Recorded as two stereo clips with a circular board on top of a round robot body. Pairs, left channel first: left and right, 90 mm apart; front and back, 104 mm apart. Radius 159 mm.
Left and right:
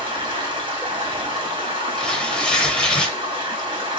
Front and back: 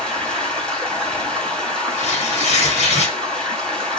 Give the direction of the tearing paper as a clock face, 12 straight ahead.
12 o'clock.